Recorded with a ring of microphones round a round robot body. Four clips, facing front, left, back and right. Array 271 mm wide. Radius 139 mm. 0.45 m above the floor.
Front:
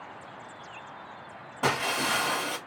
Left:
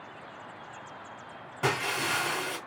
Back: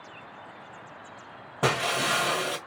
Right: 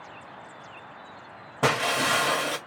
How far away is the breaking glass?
About 1.6 m.